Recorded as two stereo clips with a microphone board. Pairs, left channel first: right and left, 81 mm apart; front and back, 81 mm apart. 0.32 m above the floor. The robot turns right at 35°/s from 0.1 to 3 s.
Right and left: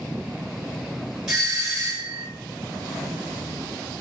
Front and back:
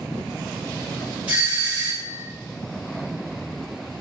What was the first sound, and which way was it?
A doorbell, 160° left.